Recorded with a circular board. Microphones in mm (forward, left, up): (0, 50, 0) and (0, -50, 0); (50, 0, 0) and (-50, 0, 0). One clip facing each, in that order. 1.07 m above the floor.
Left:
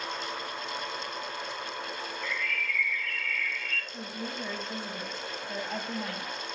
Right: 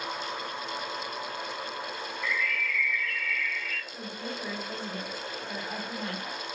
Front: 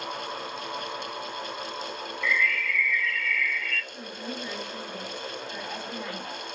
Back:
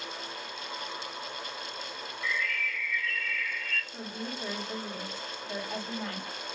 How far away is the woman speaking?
About 4.5 m.